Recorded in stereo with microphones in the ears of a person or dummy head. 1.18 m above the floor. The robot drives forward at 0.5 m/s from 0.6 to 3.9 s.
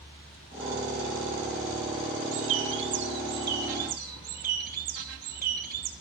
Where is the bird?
65° right (ahead or behind), 1.2 m; by 5.9 s 40° right (ahead or behind), 1.7 m.